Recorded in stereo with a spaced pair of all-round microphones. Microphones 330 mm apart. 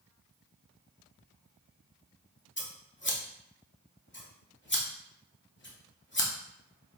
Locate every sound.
2.6 s scissors: 35° left (ahead or behind), 0.7 m